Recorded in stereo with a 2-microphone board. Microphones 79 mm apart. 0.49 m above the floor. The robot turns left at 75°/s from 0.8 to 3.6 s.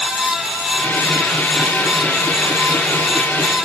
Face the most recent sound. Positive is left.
No sound to turn to.